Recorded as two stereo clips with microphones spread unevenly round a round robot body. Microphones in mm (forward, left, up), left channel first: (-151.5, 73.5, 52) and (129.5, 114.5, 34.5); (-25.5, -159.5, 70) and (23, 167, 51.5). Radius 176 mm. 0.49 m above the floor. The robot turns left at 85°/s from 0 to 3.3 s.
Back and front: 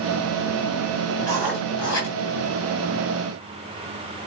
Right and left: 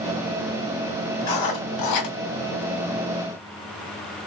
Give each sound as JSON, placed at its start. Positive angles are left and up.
{"t": 1.2, "sound": "writing", "azimuth_deg": -55, "distance_m": 2.5}